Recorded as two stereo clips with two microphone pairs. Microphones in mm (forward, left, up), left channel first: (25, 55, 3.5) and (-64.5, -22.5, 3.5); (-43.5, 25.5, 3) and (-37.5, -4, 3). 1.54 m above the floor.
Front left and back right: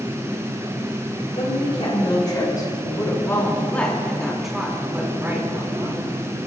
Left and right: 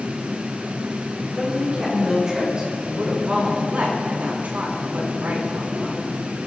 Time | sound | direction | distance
1.4 | a woman speaking | 5° right | 6 m